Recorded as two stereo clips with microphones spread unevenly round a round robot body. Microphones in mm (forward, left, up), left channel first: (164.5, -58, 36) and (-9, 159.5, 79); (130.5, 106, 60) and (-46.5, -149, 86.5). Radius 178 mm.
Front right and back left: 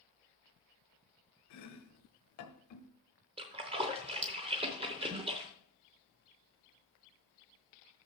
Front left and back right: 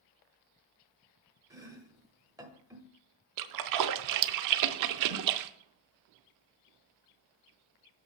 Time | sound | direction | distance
1.5 | chopping | 45° right | 1.3 m
3.4 | a splash | 155° right | 0.5 m